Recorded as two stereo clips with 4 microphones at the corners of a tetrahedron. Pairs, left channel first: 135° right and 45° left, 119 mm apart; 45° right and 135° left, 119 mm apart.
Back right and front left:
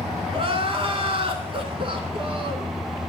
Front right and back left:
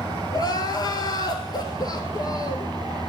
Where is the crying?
10° left, 0.8 m.